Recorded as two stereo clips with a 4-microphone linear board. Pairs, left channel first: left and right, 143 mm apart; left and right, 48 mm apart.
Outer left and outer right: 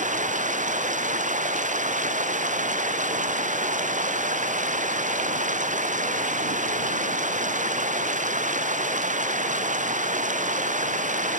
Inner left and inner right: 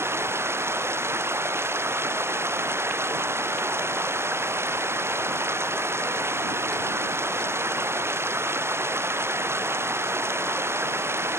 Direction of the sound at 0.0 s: 65° right (ahead or behind).